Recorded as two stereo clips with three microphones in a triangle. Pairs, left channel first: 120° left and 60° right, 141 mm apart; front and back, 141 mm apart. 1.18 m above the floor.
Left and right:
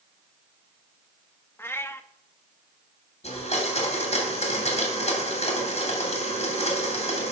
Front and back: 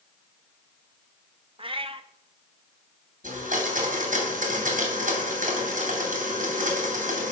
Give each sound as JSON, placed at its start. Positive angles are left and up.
{"t": 1.6, "sound": "a cat meowing", "azimuth_deg": -175, "distance_m": 0.6}
{"t": 3.2, "sound": "a blender", "azimuth_deg": 160, "distance_m": 3.0}